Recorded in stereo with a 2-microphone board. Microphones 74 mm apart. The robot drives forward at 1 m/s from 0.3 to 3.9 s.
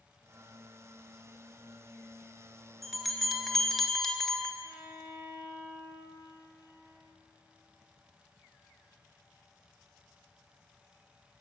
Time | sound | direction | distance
2.8 | a bell | centre (ahead or behind) | 1.0 m
4.6 | a violin | 30° right (ahead or behind) | 2.0 m